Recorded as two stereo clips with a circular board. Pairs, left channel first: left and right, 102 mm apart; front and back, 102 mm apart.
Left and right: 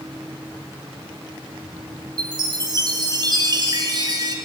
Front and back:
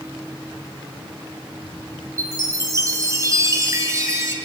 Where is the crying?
I don't hear crying.